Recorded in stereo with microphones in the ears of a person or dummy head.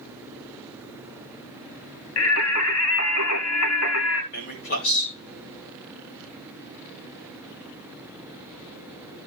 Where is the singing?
90° left, 1.1 m.